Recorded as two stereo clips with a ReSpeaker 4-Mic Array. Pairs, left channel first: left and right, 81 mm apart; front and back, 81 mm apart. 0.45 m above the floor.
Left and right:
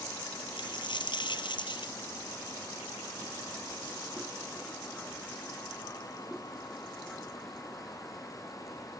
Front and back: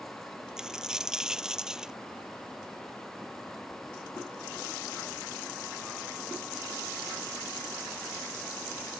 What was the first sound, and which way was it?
A dropped coin, 100° left.